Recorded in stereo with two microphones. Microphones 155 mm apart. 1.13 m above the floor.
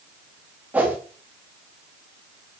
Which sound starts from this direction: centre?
A whoosh, at 0.7 s.